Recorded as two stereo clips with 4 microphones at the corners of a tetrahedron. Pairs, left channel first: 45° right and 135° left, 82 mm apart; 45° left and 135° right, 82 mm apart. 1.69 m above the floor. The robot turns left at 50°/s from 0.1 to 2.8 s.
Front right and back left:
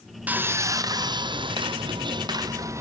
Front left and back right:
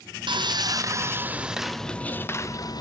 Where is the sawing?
155° right, 0.8 m; by 2.8 s 80° left, 0.8 m.